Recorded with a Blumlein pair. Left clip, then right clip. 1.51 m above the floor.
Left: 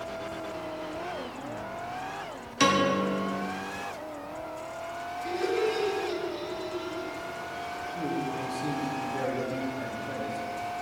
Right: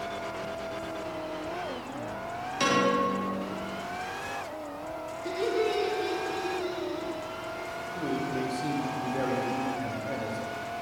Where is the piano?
20° left, 0.9 m.